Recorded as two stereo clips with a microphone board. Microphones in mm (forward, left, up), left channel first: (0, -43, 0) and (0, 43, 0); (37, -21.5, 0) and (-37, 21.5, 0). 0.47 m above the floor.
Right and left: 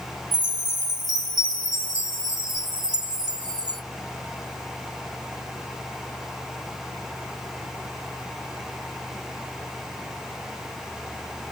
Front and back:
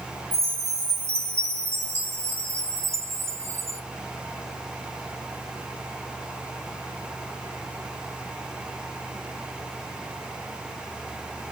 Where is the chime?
100° left, 1.4 m.